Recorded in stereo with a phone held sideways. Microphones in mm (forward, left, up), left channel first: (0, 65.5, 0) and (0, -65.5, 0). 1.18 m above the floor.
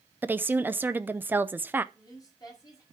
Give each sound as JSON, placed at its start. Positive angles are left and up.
{"t": 0.2, "sound": "a woman speaking", "side_deg": -15, "distance_m": 0.6}
{"t": 1.9, "sound": "a woman speaking", "side_deg": 30, "distance_m": 5.5}